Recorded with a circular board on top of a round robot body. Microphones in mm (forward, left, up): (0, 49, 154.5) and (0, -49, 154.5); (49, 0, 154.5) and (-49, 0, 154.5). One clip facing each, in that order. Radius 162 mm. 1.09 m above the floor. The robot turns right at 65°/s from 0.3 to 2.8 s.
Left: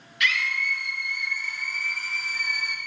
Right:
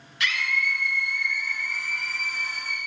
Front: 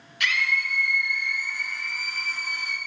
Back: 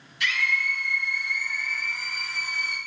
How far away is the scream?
About 0.9 m.